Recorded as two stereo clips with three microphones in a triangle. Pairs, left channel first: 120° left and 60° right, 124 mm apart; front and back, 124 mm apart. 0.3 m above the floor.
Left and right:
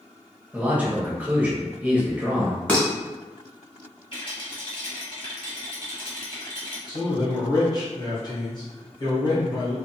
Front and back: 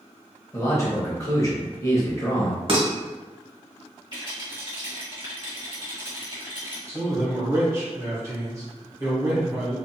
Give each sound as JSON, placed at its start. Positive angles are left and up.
{"t": 0.5, "sound": "a man speaking", "azimuth_deg": 0, "distance_m": 0.9}
{"t": 2.7, "sound": "dishes clattering", "azimuth_deg": -160, "distance_m": 1.0}
{"t": 4.1, "sound": "a rattle", "azimuth_deg": 145, "distance_m": 1.3}
{"t": 6.9, "sound": "a man speaking", "azimuth_deg": 135, "distance_m": 1.4}